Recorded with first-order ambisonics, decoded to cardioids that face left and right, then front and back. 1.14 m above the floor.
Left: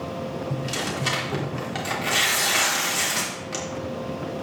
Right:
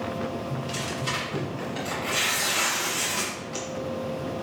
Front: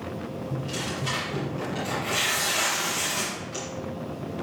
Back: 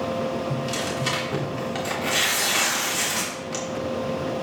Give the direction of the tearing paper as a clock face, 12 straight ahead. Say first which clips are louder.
Left 3 dB, back 5 dB; 8 o'clock.